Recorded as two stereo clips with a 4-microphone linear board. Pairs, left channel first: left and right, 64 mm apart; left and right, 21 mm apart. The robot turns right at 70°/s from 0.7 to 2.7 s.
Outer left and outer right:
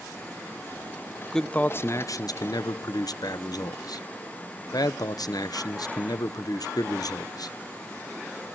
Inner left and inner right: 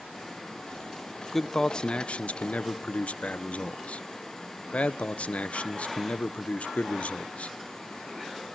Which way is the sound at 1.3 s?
5° left.